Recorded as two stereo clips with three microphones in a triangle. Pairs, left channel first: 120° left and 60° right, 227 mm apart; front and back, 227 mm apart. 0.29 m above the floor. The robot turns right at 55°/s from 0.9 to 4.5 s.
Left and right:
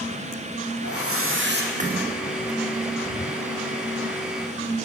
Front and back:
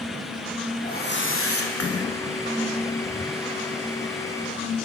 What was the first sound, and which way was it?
A whoosh, 50° right.